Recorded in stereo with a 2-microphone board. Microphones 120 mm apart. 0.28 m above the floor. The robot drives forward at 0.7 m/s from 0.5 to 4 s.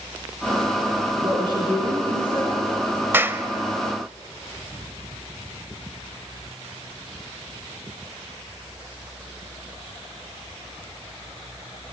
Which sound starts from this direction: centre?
A clap, at 3.1 s.